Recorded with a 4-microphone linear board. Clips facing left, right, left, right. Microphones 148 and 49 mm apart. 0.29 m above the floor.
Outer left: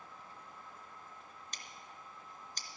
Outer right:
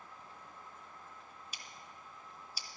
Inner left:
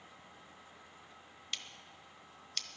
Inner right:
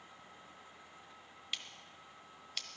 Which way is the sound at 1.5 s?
10° right (ahead or behind).